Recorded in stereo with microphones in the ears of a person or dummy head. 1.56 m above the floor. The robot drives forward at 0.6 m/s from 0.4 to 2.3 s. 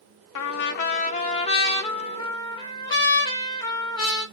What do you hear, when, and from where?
0.3 s a trumpet: 75° left (ahead or behind), 0.5 m; by 4.2 s 20° left (ahead or behind), 1.4 m